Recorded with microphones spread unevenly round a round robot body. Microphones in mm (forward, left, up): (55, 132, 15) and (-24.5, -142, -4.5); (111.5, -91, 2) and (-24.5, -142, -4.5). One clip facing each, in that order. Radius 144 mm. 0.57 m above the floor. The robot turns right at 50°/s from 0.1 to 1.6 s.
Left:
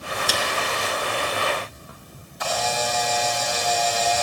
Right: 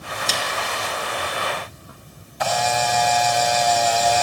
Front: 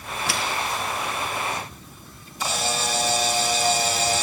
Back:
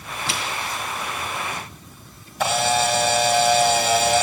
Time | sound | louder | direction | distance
0.3 | a snare drum | left 2 dB, front 1 dB | 150° left | 3 m
2.4 | a camera shutter | right 3 dB, back 7 dB | 135° right | 3.5 m